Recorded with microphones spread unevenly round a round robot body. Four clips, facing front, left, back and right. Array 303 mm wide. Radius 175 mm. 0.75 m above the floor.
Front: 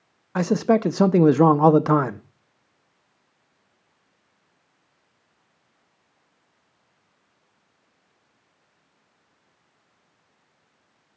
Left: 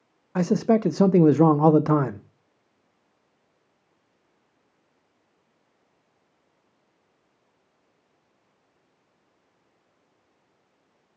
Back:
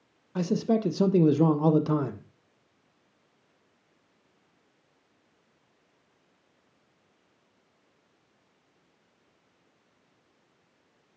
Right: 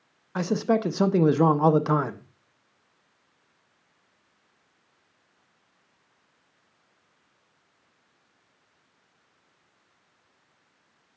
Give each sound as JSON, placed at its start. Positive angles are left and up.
{"t": 0.3, "sound": "a man speaking", "azimuth_deg": 5, "distance_m": 0.5}